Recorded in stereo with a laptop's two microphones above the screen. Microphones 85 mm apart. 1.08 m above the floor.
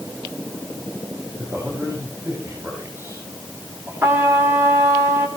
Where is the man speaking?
25° right (ahead or behind), 6.5 m.